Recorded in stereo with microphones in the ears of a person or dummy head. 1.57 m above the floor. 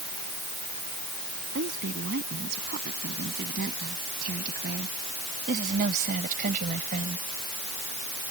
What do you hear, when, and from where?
1.6 s a woman speaking: 55° right (ahead or behind); by 7.3 s 40° right (ahead or behind)